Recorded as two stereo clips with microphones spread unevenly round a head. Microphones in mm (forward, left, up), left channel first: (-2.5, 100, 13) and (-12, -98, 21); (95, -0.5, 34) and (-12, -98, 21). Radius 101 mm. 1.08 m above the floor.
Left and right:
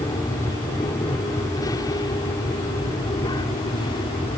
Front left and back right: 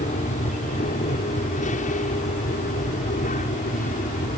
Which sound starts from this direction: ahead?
An aircraft, at 0.0 s.